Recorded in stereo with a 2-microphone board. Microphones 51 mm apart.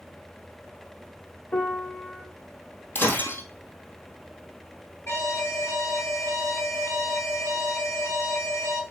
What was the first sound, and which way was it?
A piano, 30° left (ahead or behind).